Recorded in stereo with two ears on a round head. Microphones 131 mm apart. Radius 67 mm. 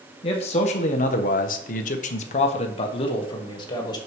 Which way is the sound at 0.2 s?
35° left (ahead or behind).